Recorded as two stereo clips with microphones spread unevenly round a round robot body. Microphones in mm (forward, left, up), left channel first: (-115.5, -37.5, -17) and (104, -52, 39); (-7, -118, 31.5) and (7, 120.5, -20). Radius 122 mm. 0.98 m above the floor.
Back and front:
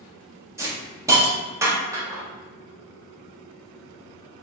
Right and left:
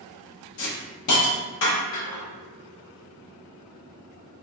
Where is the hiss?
80° right, 0.9 m.